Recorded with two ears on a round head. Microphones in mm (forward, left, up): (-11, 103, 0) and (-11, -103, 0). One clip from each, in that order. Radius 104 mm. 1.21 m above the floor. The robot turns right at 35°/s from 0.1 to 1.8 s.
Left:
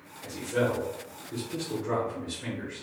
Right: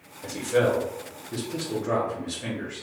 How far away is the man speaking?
About 0.7 m.